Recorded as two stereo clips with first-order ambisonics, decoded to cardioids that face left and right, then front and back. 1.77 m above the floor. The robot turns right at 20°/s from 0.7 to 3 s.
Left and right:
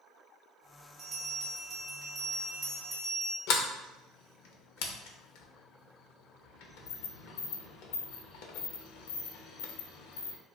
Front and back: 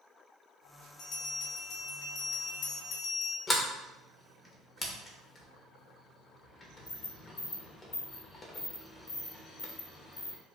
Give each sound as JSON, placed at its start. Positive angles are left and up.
{"t": 1.0, "sound": "a bell", "azimuth_deg": -50, "distance_m": 0.9}
{"t": 3.5, "sound": "a sliding door", "azimuth_deg": 70, "distance_m": 0.6}